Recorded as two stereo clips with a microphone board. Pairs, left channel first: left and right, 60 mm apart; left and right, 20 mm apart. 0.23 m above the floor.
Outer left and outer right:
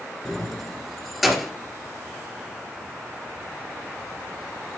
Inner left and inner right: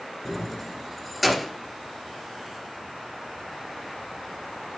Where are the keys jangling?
5° left (ahead or behind), 1.9 m; by 1.5 s centre (ahead or behind), 2.5 m.